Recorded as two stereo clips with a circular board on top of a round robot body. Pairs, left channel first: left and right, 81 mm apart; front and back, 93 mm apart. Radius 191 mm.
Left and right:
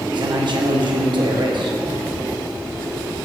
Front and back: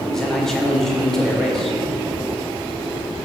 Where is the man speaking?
85° right, 2.5 m.